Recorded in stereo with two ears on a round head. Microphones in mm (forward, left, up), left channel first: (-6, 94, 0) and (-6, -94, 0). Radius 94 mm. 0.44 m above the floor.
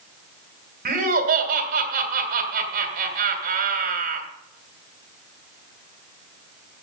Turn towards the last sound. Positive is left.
turn(degrees=-45)  # may be behind; listen again after turning